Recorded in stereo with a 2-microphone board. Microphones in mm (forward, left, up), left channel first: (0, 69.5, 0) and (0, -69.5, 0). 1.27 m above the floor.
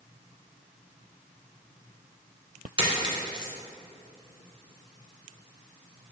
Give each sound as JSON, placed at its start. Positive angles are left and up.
{"t": 2.8, "sound": "a dropped coin", "side_deg": -40, "distance_m": 1.4}